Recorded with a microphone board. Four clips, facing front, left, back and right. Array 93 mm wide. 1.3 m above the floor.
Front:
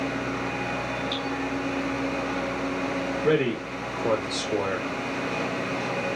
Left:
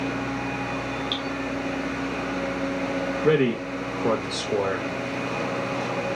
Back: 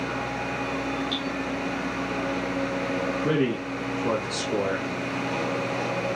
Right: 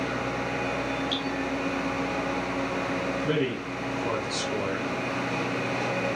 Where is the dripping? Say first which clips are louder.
Even, even; 90° left, 4.5 m.